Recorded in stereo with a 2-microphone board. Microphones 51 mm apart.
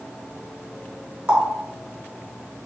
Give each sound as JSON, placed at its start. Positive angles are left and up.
{"t": 1.3, "sound": "a running tap", "side_deg": -25, "distance_m": 1.0}